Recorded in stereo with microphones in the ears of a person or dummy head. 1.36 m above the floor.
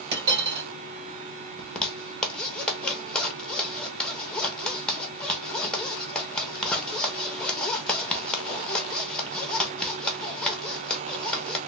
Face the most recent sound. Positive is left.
turn(degrees=5)  # may be behind; listen again after turning